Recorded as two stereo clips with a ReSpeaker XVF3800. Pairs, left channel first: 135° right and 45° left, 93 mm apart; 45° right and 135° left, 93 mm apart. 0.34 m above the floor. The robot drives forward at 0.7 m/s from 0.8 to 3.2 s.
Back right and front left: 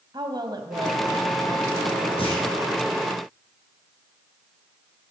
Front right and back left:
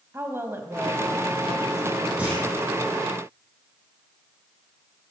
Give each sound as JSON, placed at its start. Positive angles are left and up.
{"t": 0.1, "sound": "a woman speaking", "azimuth_deg": 75, "distance_m": 2.0}
{"t": 2.2, "sound": "a clunk", "azimuth_deg": -150, "distance_m": 6.5}